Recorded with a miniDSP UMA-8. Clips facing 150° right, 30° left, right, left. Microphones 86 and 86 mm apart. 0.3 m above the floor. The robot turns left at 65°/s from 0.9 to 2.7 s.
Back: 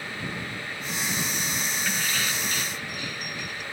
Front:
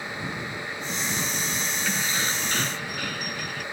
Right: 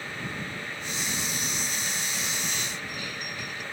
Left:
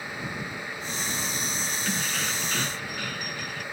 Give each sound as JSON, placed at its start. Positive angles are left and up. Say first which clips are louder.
{"t": 1.9, "sound": "keys jangling", "louder": "front 2 dB, left 4 dB", "azimuth_deg": 115}